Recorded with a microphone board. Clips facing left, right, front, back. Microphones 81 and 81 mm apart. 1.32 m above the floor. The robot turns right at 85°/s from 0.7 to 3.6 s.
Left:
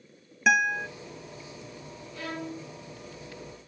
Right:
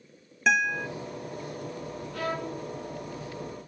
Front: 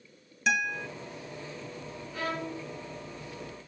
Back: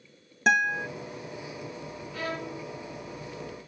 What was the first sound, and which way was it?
A guitar, 175° left.